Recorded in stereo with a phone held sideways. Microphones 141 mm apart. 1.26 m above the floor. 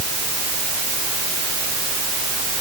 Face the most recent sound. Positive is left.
No sound to turn to.